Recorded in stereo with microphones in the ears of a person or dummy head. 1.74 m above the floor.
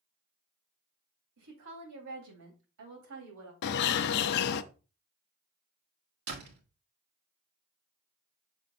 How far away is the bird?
About 0.5 m.